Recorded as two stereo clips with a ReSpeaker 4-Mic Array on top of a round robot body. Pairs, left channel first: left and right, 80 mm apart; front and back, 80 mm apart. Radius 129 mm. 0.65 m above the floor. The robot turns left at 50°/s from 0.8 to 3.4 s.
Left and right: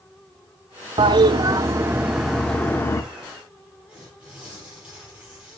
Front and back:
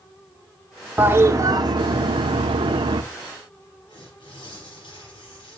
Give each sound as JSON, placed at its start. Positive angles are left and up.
{"t": 1.0, "sound": "a toilet flushing", "azimuth_deg": -110, "distance_m": 0.8}
{"t": 3.9, "sound": "tearing paper", "azimuth_deg": -10, "distance_m": 6.5}